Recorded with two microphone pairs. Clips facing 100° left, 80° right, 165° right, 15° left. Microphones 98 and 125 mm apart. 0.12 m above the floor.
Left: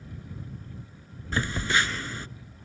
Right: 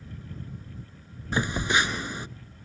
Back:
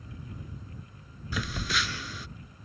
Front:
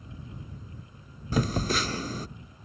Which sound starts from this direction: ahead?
A phone buzzing, at 1.3 s.